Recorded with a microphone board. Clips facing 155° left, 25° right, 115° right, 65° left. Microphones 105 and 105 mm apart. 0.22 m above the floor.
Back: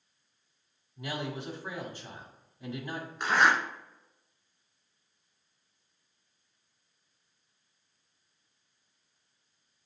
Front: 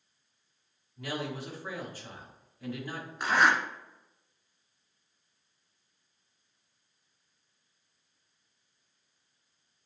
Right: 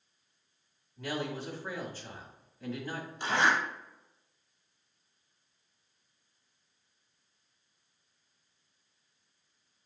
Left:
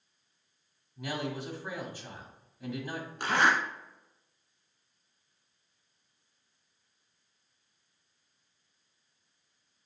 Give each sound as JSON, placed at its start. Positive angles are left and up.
{"t": 1.0, "sound": "a man speaking", "azimuth_deg": 130, "distance_m": 1.2}
{"t": 3.2, "sound": "a zipper", "azimuth_deg": 65, "distance_m": 1.1}